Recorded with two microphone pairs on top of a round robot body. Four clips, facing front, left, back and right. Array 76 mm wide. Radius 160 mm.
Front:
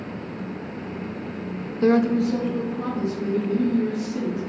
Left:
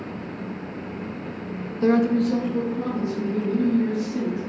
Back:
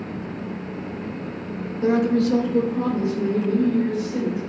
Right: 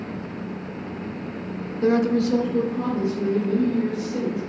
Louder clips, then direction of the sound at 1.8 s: Even, even; 50° left.